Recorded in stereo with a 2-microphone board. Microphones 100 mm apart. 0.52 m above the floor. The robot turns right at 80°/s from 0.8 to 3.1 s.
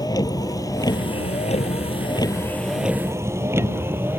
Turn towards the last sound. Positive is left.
turn(degrees=-20)  # may be behind; listen again after turning